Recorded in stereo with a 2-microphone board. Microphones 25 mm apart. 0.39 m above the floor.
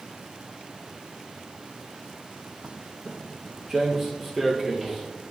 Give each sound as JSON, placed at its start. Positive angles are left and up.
{"t": 2.6, "sound": "footsteps", "side_deg": -40, "distance_m": 0.6}